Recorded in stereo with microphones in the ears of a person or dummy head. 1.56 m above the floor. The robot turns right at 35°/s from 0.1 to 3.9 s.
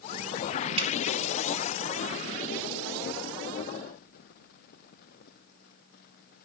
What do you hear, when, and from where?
0.8 s dripping: 30° right (ahead or behind), 2 m